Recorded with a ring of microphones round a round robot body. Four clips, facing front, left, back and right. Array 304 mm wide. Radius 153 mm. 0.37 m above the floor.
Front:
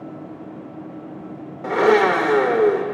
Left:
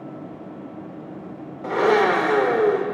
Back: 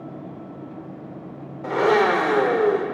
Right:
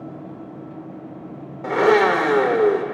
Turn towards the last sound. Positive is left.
turn(degrees=-45)